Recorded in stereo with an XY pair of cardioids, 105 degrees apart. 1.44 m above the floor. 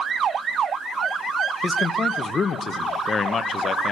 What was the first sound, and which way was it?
A man speaking, 40° left.